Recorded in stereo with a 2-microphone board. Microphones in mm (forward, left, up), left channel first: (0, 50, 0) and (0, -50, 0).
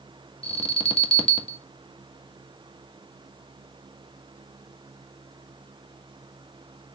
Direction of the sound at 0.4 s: 70° left (ahead or behind).